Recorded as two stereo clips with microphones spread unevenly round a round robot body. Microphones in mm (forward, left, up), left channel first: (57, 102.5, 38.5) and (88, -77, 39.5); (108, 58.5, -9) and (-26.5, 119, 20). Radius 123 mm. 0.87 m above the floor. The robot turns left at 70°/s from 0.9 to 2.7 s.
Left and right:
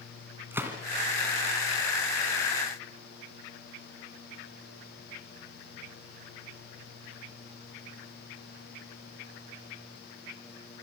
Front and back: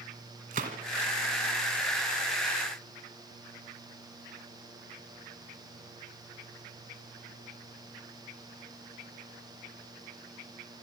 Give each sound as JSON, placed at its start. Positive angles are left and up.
{"t": 0.5, "sound": "a gunshot", "azimuth_deg": -160, "distance_m": 1.7}